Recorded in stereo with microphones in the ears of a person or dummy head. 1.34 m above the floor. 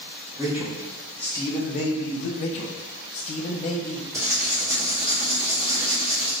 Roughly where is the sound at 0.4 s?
Centre.